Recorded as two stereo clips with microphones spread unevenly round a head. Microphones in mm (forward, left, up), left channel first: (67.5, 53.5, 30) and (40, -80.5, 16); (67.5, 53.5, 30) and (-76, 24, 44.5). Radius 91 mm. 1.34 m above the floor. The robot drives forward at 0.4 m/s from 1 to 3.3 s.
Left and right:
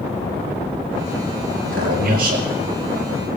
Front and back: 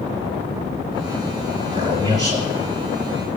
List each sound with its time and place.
1.6 s a man speaking: 110° right, 3.5 m; by 2.5 s 115° right, 3.5 m